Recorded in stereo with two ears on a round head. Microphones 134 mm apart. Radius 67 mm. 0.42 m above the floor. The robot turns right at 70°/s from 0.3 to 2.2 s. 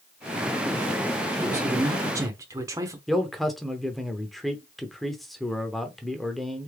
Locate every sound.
1.4 s a man speaking: 15° right (ahead or behind), 0.9 m; by 3.0 s 20° right (ahead or behind), 0.9 m
3.1 s a man speaking: centre (ahead or behind), 0.8 m